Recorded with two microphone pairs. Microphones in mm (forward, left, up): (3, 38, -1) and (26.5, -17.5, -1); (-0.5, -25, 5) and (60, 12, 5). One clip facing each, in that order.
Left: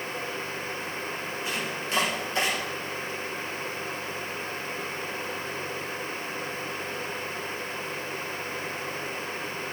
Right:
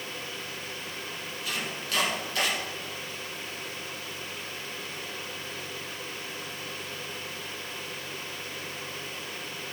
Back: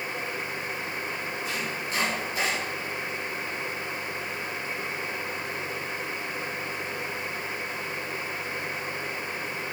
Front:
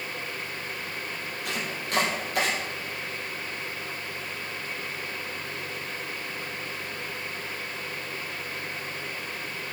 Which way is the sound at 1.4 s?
45° left.